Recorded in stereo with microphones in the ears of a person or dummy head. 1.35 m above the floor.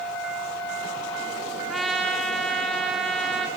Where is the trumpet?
Centre (ahead or behind), 1.1 m.